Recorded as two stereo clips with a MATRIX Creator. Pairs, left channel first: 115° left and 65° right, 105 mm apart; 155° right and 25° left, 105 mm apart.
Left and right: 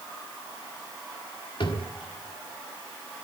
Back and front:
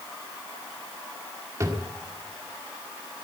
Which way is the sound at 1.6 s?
80° left.